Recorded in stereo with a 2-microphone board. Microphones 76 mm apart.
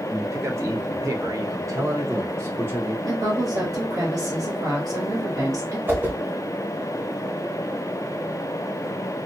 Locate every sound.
0.1 s a man speaking: 40° right (ahead or behind), 1.3 m; by 3.0 s 35° right (ahead or behind), 1.1 m
3.0 s a woman speaking: 65° right (ahead or behind), 2 m
5.9 s a whoosh: 30° right (ahead or behind), 1.4 m